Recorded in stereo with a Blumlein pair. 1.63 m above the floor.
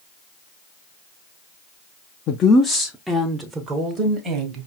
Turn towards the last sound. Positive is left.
turn(degrees=-30)